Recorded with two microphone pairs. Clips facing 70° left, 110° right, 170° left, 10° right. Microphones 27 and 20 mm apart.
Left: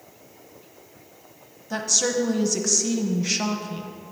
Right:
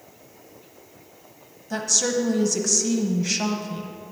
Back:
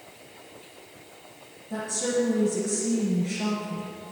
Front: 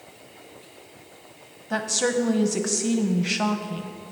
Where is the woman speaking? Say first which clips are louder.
Even, front 4 dB; 15° right, 1.0 m.